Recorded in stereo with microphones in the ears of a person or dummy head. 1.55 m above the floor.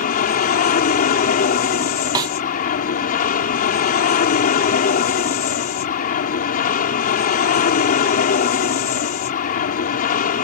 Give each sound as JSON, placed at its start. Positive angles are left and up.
{"t": 0.0, "sound": "an aircraft", "side_deg": 50}
{"t": 2.1, "sound": "a snare drum", "side_deg": -20}